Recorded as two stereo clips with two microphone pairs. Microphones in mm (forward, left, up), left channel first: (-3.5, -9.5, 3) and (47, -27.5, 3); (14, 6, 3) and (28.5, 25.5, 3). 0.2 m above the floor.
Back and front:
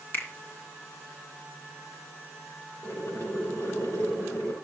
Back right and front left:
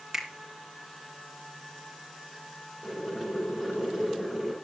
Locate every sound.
0.1 s a finger snap: 125° left, 2 m
2.8 s boiling: 150° left, 5.5 m